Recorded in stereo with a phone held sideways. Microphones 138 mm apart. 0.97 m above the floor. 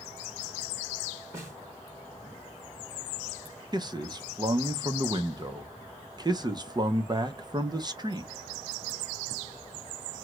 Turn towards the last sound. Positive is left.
turn(degrees=-30)  # may be behind; listen again after turning